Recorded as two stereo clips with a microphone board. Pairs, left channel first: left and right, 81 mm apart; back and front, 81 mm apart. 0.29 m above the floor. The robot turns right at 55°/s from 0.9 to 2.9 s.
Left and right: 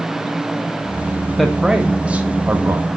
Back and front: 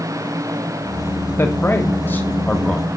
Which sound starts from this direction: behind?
A man speaking, at 1.4 s.